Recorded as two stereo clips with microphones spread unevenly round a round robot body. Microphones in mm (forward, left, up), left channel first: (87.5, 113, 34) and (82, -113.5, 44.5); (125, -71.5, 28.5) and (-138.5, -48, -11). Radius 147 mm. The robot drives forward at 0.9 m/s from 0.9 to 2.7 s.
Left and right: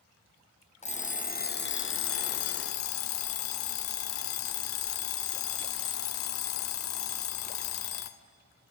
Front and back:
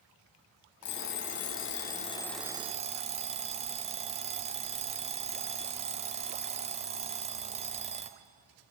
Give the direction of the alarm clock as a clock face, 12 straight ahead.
11 o'clock.